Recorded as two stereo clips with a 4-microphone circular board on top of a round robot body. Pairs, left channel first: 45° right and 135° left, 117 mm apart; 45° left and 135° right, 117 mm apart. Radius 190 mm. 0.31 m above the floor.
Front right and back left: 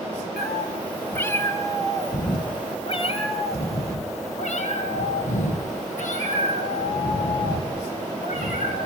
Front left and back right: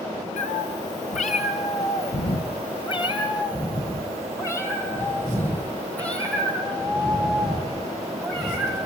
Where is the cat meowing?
45° left, 1.9 m; by 8.8 s 45° right, 4.5 m.